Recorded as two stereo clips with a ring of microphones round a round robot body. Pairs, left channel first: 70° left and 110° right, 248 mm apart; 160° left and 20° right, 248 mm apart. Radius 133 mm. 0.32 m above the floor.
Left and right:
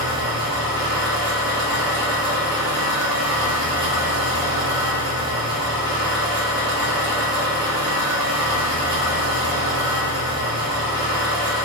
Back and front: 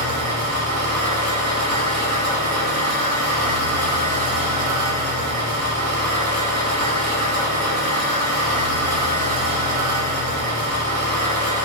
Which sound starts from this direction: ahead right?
An engine running, at 0.0 s.